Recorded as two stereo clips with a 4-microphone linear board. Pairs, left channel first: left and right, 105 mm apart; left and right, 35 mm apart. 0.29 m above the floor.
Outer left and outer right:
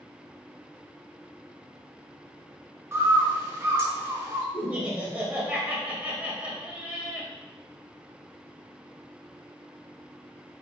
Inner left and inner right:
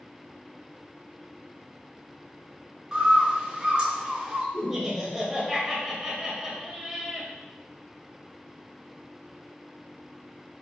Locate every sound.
2.9 s a bird: 25° right (ahead or behind), 0.7 m
4.5 s laughter: 15° right (ahead or behind), 0.9 m